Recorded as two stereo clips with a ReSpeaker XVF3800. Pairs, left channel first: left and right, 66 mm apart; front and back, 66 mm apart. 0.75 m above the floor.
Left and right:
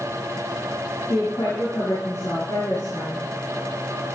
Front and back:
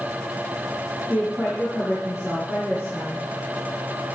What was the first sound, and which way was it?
A woman speaking, 105° left.